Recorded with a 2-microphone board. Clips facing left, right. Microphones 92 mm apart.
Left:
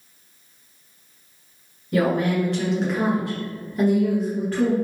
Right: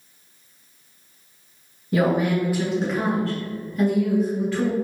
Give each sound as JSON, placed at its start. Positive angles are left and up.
{"t": 1.9, "sound": "a woman speaking", "side_deg": -25, "distance_m": 1.2}